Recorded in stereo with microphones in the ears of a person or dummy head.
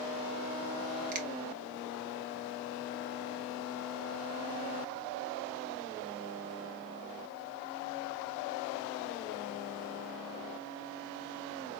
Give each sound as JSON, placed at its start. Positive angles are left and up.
{"t": 1.1, "sound": "a finger snap", "side_deg": -45, "distance_m": 1.3}